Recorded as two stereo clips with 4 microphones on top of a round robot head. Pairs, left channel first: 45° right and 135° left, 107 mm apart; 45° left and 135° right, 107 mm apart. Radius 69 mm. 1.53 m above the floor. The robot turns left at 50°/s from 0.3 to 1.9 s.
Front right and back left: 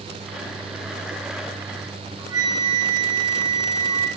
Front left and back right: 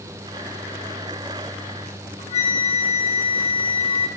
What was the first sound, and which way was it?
A flute, 75° left.